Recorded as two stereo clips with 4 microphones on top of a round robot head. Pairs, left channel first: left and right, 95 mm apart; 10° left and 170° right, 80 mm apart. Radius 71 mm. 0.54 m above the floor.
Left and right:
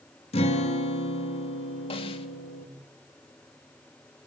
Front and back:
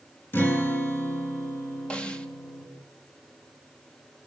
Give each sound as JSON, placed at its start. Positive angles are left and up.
{"t": 0.3, "sound": "a guitar", "azimuth_deg": 75, "distance_m": 4.0}
{"t": 1.9, "sound": "a snare drum", "azimuth_deg": 85, "distance_m": 2.5}